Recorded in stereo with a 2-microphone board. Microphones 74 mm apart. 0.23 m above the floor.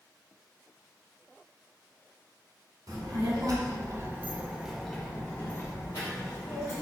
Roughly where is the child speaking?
Right.